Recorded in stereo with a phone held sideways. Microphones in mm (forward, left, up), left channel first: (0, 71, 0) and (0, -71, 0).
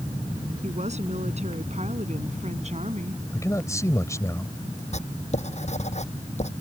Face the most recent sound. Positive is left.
turn(degrees=55)  # may be behind; listen again after turning